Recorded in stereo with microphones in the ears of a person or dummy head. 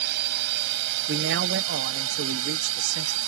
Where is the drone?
60° right (ahead or behind); by 3.3 s 85° right.